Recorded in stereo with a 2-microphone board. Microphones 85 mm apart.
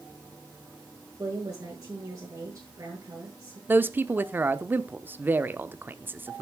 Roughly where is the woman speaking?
Right.